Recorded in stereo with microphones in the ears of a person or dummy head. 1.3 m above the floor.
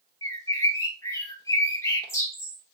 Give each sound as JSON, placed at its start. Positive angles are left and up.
{"t": 0.2, "sound": "a bird", "side_deg": 20, "distance_m": 0.7}